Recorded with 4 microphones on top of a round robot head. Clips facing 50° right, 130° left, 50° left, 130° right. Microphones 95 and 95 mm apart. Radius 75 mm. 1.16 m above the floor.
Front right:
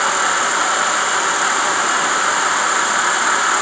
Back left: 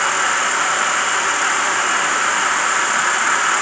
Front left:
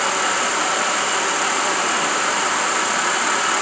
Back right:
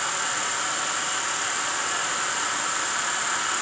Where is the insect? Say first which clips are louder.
Front right 1 dB, front left 8 dB; 25° left, 1.1 m.